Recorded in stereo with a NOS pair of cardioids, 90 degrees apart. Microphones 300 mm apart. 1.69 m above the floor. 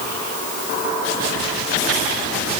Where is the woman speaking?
I don't hear a woman speaking.